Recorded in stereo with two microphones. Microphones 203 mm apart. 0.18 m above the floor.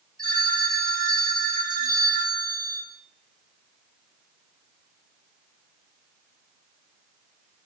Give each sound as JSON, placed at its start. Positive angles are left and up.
{"t": 0.2, "sound": "a phone ringing", "side_deg": -50, "distance_m": 1.6}